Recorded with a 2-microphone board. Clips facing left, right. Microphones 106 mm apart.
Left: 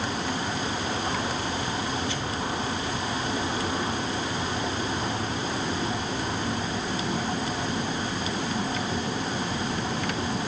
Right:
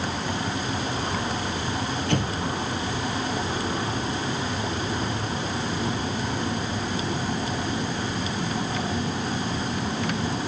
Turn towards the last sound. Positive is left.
turn(degrees=-60)  # may be behind; listen again after turning